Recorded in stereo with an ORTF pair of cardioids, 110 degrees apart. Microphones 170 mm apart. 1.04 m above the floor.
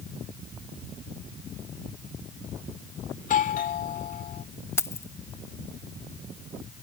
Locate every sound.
3.2 s a doorbell: 55° left
4.8 s keys jangling: 15° left